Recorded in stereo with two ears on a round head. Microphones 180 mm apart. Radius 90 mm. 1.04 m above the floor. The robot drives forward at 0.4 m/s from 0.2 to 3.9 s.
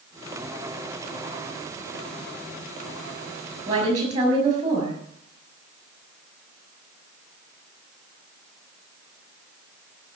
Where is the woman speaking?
35° right (ahead or behind), 6.5 m.